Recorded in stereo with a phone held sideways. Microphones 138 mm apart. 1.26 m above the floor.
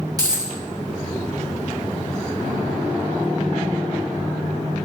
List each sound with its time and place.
0.2 s a dropped coin: 25° right (ahead or behind), 0.7 m